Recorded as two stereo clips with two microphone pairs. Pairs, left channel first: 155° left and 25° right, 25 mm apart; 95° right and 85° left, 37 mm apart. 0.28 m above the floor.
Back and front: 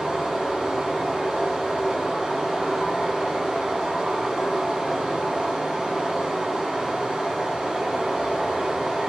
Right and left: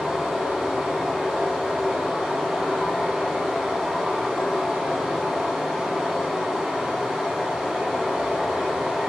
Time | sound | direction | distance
0.0 | running water | 10° left | 1.1 m